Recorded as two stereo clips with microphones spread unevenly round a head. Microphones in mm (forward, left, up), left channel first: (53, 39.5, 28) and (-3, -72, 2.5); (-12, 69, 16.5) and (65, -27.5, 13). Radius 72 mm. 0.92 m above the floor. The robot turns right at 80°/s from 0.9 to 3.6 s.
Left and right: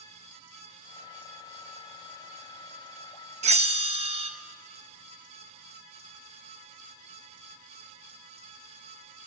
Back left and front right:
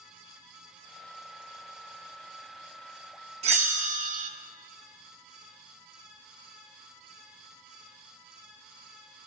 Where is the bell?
95° right, 0.6 m; by 4.3 s 85° right, 0.6 m.